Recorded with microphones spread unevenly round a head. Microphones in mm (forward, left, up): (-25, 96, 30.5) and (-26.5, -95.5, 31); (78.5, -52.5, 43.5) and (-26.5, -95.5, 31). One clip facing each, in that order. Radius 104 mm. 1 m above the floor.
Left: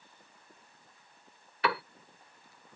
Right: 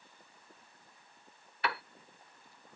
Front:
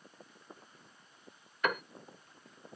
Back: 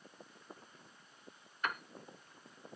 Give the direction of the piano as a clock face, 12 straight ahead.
10 o'clock.